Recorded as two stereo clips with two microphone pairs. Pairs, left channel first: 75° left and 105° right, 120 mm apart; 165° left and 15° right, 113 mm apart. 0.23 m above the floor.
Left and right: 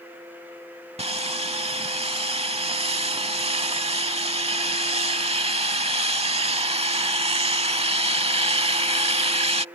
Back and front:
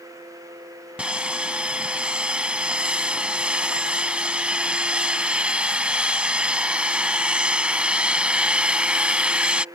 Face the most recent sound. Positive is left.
turn(degrees=-90)